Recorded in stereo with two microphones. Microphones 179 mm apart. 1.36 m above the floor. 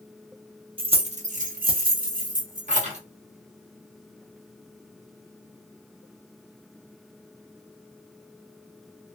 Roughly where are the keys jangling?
Right.